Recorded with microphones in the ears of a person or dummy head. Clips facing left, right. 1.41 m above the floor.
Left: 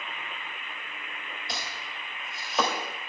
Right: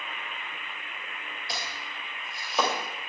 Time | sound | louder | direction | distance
1.5 | chopping | right 1 dB | centre (ahead or behind) | 3 m